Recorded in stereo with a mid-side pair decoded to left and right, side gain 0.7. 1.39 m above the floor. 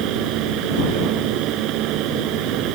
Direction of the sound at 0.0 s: 60° right.